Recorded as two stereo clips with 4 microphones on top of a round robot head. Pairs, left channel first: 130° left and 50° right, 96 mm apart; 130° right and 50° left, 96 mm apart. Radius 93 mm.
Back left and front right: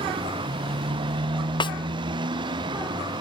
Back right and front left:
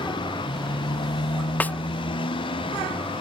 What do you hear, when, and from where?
0.0 s a motorcycle: 90° right; by 3.2 s 95° right
1.6 s a snare drum: 160° left